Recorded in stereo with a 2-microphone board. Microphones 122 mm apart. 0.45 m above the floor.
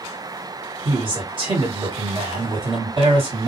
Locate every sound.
0.8 s a man speaking: 45° right (ahead or behind), 2 m